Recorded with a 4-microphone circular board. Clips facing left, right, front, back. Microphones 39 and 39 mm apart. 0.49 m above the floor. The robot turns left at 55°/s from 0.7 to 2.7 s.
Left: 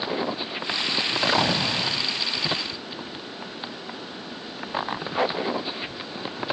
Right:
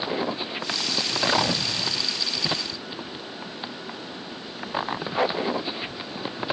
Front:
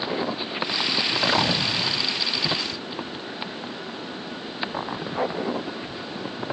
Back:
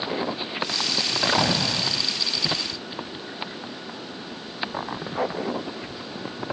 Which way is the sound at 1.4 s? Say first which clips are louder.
Left 2 dB, even; 135° left.